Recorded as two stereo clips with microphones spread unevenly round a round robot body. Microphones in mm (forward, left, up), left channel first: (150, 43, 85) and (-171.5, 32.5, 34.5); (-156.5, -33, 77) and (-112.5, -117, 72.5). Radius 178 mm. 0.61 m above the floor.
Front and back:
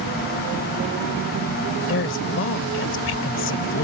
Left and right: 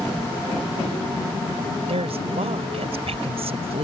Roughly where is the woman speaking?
Ahead right.